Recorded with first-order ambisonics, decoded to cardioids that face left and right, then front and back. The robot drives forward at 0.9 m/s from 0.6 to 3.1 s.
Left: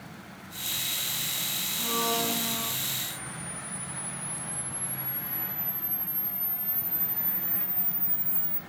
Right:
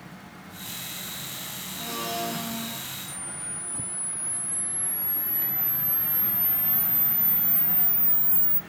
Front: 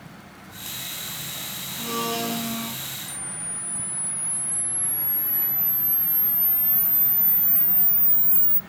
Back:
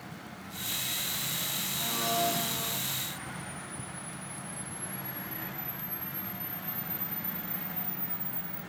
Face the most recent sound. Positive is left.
turn(degrees=-20)